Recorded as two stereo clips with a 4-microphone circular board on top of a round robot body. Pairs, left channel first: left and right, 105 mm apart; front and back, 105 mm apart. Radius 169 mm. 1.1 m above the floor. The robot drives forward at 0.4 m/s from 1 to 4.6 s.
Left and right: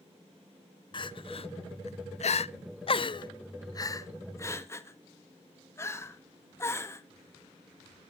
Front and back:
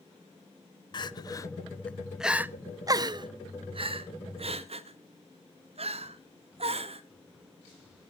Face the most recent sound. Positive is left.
turn(degrees=155)